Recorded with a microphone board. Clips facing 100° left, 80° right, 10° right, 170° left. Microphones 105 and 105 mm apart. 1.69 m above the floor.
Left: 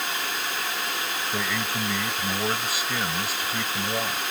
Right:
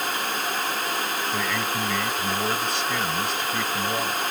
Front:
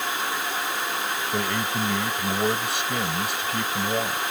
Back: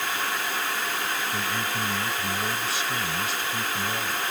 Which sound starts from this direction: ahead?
A man speaking, at 1.3 s.